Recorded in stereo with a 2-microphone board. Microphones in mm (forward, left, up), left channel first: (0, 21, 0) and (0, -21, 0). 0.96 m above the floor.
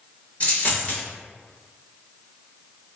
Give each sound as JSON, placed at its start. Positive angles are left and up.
{"t": 0.4, "sound": "a dropped coin", "side_deg": 35, "distance_m": 1.0}